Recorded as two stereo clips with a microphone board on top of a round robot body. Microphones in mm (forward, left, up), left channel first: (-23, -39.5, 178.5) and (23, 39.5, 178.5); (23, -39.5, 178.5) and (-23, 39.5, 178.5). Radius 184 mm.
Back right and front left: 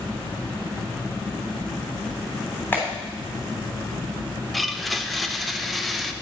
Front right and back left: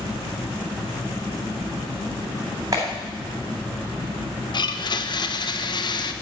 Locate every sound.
2.7 s a clap: 170° left, 3 m
4.5 s a blender: 30° right, 0.8 m